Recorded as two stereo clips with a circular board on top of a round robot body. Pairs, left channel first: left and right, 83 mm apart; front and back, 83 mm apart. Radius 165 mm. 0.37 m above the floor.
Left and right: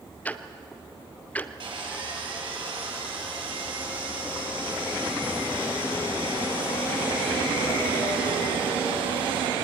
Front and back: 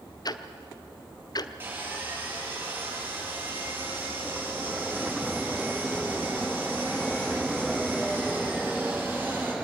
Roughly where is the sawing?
Behind right.